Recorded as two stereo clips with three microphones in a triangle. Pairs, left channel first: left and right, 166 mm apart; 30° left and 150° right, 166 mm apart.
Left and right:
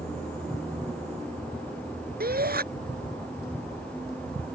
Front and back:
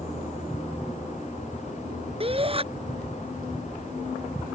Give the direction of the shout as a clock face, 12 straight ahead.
3 o'clock.